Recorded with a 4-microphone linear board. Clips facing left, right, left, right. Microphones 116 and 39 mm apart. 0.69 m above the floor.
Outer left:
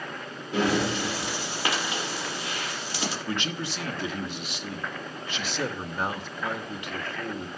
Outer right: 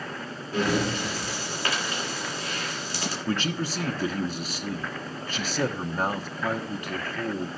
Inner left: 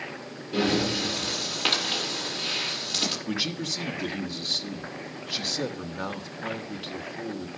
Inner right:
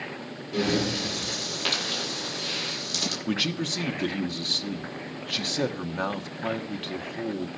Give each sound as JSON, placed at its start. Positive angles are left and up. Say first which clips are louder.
{"t": 0.5, "sound": "breathing", "louder": "outer left 1 dB, inner left 1 dB", "side_deg": 20, "distance_m": 9.0}
{"t": 3.3, "sound": "a man speaking", "louder": "outer right 3 dB, inner right 3 dB", "side_deg": -40, "distance_m": 1.2}